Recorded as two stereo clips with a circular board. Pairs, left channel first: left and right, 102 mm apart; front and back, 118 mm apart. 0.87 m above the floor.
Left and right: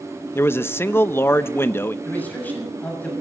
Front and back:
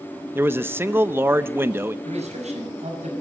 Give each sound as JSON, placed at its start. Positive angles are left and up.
{"t": 0.3, "sound": "a man speaking", "azimuth_deg": 130, "distance_m": 0.7}
{"t": 2.0, "sound": "a man speaking", "azimuth_deg": 160, "distance_m": 6.5}